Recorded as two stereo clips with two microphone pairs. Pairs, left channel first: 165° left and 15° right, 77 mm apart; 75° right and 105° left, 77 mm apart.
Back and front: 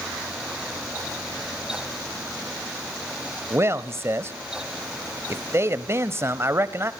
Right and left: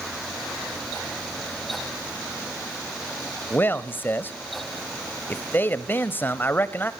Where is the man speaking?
35° right, 1.3 m.